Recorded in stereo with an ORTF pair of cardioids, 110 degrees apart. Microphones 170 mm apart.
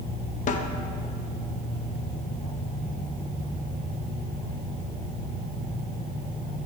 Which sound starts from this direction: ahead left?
A snare drum, at 0.5 s.